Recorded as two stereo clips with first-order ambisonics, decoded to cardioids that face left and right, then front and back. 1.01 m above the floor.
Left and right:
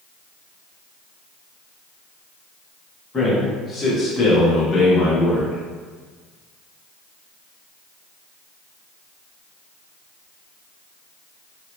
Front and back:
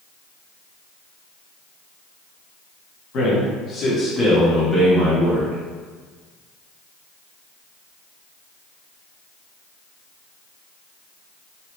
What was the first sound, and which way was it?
A man speaking, 25° left.